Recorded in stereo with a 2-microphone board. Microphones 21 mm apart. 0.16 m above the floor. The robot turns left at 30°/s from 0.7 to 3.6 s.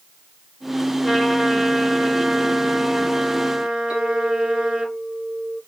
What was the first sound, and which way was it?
A trumpet, 15° right.